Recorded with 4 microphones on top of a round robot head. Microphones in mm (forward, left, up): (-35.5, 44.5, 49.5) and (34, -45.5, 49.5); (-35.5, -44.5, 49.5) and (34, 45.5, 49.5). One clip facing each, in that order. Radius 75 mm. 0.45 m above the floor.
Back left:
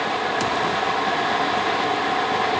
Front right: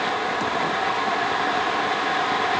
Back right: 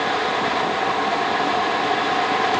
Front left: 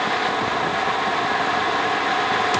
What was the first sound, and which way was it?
Only background noise.